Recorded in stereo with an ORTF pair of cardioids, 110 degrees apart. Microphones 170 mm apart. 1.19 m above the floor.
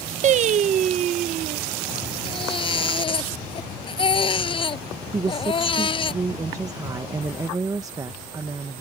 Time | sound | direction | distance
0.2 | singing | 45° right | ?
2.2 | a baby crying | 30° left | ?
5.1 | a woman speaking | 20° right | ?